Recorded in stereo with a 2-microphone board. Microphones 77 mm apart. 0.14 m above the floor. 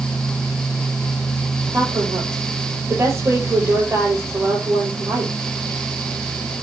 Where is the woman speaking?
35° right (ahead or behind), 4.5 m.